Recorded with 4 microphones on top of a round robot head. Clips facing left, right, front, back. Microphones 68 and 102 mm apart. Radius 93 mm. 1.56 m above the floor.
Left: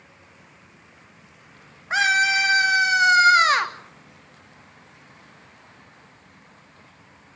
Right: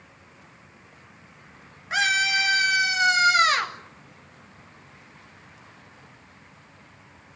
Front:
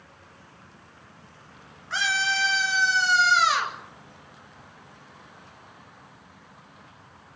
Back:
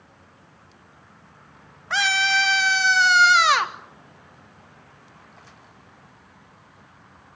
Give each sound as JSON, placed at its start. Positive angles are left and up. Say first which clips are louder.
{"t": 1.9, "sound": "a scream", "louder": "left 4 dB, back 4 dB", "azimuth_deg": 155, "distance_m": 3.0}